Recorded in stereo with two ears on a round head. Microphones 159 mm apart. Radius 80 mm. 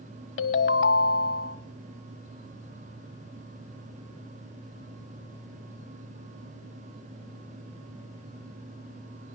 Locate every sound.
0.4 s a ringtone: 65° left (ahead or behind), 1.0 m